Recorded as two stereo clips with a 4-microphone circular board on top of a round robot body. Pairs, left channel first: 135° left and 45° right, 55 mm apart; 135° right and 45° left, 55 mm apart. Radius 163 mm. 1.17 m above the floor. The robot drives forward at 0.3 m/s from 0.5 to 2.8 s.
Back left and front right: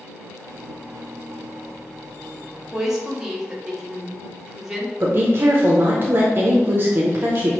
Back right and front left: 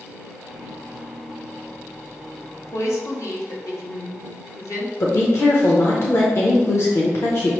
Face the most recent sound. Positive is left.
turn(degrees=-95)